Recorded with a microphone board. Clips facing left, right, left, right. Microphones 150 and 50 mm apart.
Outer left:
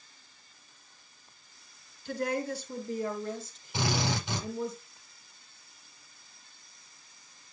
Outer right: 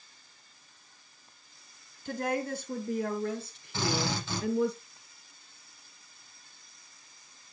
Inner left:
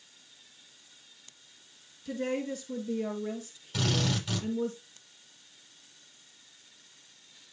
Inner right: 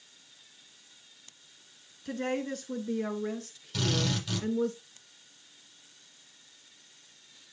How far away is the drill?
About 9 m.